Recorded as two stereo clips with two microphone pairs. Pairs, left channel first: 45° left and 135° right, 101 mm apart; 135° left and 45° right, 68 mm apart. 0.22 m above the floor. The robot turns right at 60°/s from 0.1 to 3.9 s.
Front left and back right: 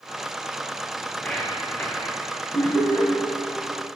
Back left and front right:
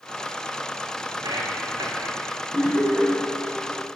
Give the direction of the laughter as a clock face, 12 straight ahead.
1 o'clock.